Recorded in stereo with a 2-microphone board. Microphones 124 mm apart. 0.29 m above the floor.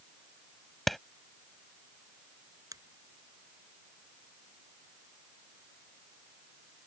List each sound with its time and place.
0.9 s a clap: centre (ahead or behind)
2.7 s a finger snap: 30° right (ahead or behind)